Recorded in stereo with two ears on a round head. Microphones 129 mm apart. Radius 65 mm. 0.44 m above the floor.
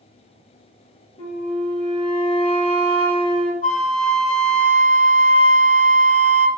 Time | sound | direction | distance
1.2 | a flute | 40° left (ahead or behind) | 1.9 m
3.6 | a flute | 50° left (ahead or behind) | 0.7 m